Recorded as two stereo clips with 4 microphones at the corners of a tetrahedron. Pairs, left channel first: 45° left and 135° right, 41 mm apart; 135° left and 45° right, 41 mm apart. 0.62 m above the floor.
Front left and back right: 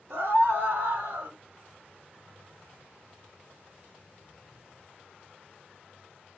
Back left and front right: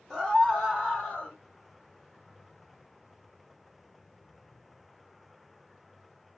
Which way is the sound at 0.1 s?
150° right.